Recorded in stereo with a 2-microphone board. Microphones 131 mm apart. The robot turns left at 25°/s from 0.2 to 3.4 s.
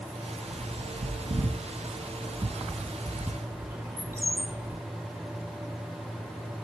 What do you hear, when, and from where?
0.5 s a bird: 70° right (ahead or behind), 0.6 m; by 4.8 s 20° right (ahead or behind), 0.6 m